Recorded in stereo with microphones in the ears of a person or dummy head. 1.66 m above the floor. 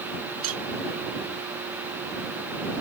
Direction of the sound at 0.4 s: 85° right.